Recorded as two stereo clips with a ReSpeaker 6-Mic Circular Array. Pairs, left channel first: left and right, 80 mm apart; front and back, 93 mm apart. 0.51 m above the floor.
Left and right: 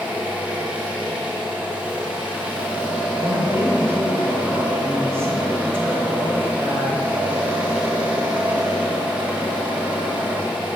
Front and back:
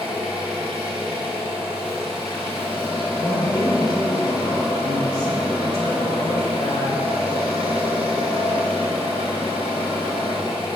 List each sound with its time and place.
0.0 s an engine running: 165° right, 3 m
3.2 s a woman speaking: 35° right, 2.5 m